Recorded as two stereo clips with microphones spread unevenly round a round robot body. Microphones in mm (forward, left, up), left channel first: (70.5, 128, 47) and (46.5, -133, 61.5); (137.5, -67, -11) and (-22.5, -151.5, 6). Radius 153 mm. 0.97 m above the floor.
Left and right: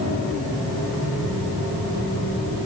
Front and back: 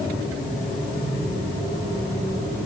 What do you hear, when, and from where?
Only background noise.